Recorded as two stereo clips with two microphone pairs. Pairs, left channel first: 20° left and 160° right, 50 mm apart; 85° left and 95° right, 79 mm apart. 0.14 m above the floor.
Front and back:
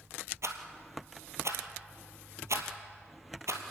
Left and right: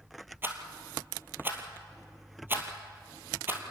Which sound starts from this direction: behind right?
A rattle, at 0.4 s.